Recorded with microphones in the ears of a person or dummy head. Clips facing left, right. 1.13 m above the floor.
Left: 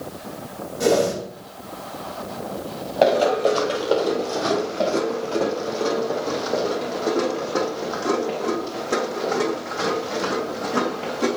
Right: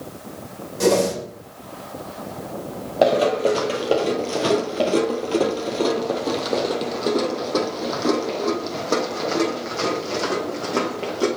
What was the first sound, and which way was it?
A whoosh, 65° right (ahead or behind).